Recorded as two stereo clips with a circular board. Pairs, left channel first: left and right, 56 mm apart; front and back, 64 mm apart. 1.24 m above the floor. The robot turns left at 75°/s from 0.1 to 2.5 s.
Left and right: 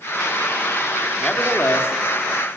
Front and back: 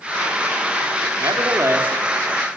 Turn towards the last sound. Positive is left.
turn(degrees=70)